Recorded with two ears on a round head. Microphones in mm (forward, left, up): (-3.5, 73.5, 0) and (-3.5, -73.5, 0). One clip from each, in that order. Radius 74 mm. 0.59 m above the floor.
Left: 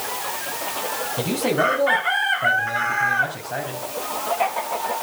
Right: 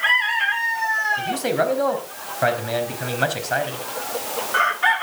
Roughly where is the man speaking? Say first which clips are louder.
Left 1 dB; right.